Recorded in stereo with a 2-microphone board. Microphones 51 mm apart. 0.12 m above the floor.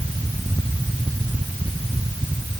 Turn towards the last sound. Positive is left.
No sound to turn to.